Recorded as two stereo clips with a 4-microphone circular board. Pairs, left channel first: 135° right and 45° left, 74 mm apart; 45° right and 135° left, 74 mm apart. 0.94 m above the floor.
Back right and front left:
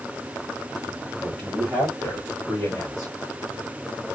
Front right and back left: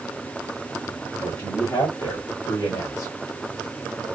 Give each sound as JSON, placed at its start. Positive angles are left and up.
{"t": 1.2, "sound": "a man speaking", "azimuth_deg": -50, "distance_m": 2.5}